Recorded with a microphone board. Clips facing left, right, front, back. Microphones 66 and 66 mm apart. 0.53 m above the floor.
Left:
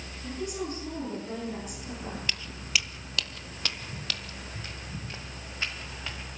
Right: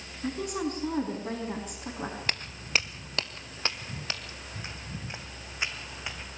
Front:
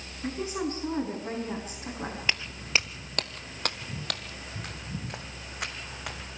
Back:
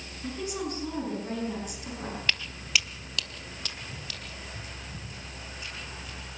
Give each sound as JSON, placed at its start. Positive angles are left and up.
{"t": 0.2, "sound": "a woman speaking", "azimuth_deg": -70, "distance_m": 5.0}
{"t": 2.3, "sound": "footsteps", "azimuth_deg": -70, "distance_m": 0.7}